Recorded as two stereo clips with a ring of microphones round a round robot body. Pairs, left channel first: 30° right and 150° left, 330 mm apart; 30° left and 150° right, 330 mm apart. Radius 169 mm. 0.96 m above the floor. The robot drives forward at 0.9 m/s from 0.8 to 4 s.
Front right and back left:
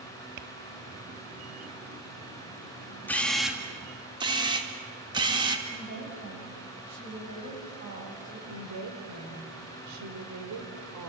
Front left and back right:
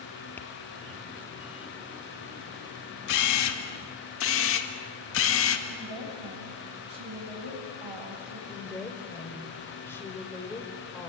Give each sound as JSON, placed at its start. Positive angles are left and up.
{"t": 0.4, "sound": "tapping", "azimuth_deg": 115, "distance_m": 1.4}
{"t": 3.1, "sound": "a camera shutter", "azimuth_deg": 55, "distance_m": 2.5}
{"t": 5.7, "sound": "a woman speaking", "azimuth_deg": -160, "distance_m": 7.0}
{"t": 8.5, "sound": "a woman speaking", "azimuth_deg": 115, "distance_m": 3.5}